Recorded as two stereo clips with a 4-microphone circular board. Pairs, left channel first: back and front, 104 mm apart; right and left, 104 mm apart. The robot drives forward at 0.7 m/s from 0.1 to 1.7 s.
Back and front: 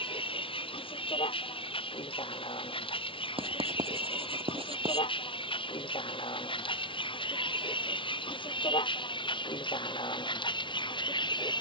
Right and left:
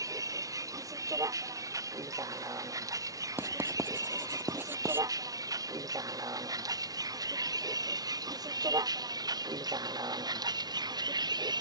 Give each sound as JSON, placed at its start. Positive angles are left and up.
{"t": 0.0, "sound": "a vehicle", "azimuth_deg": 145}
{"t": 3.4, "sound": "writing", "azimuth_deg": 20}